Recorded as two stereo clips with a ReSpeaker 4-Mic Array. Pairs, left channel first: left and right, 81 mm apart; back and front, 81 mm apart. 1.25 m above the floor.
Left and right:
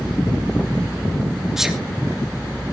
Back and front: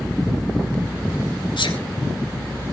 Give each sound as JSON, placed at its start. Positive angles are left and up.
{"t": 1.6, "sound": "a sneeze", "azimuth_deg": -175, "distance_m": 3.0}